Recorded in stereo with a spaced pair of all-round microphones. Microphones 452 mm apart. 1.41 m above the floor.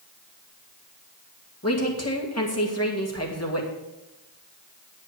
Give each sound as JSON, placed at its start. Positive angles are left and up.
{"t": 1.6, "sound": "a woman speaking", "side_deg": 35, "distance_m": 2.0}